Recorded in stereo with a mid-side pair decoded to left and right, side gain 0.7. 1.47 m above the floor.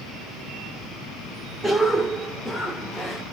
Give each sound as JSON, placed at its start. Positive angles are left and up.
{"t": 1.6, "sound": "a cough", "azimuth_deg": 0, "distance_m": 1.1}